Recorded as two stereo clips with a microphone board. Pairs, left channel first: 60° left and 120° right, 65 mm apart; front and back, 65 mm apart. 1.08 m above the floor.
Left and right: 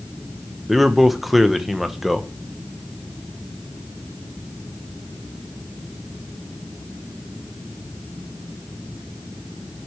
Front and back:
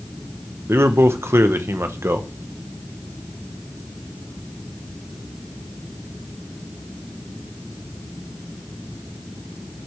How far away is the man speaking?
About 0.9 m.